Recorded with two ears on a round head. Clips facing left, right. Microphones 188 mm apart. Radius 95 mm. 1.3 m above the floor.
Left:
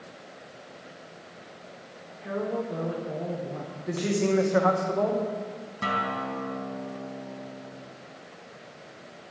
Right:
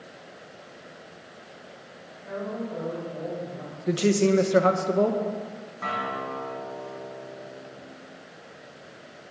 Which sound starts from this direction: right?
A woman speaking, at 3.9 s.